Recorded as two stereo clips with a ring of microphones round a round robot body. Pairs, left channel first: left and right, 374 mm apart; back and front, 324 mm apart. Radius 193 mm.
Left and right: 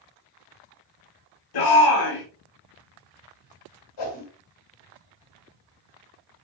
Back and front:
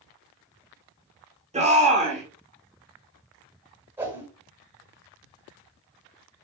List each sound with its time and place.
1.5 s a shout: 70° left, 4.5 m
4.0 s a whoosh: 85° left, 7 m